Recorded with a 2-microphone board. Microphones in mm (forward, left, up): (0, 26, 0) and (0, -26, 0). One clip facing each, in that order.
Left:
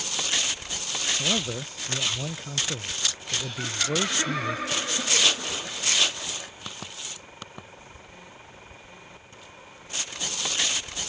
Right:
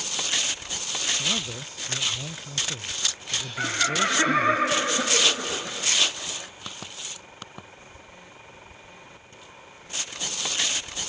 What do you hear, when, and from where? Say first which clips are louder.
1.2 s a man speaking: left 2 dB; 30° left (ahead or behind)
3.6 s laughter: right 4 dB; 35° right (ahead or behind)